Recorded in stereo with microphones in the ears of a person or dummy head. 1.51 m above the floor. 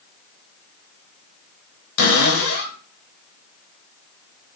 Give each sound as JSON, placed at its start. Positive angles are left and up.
{"t": 2.0, "sound": "a cupboard door", "side_deg": 75, "distance_m": 1.0}